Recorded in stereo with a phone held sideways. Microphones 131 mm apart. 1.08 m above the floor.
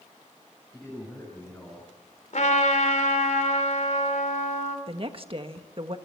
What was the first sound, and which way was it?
A man speaking, 5° left (ahead or behind).